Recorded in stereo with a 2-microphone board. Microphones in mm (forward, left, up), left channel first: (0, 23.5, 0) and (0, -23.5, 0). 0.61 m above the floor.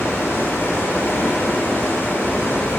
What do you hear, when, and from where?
0.0 s running water: 55° left (ahead or behind), 1.3 m